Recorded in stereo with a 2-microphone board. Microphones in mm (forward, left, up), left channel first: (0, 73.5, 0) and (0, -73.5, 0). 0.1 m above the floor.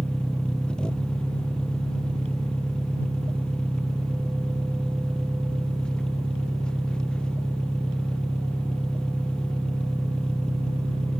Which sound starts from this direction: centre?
An engine running, at 0.0 s.